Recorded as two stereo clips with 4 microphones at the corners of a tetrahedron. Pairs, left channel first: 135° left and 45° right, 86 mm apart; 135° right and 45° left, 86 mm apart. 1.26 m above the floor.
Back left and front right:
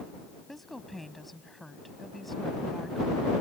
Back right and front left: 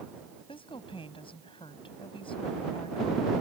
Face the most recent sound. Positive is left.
turn(degrees=-135)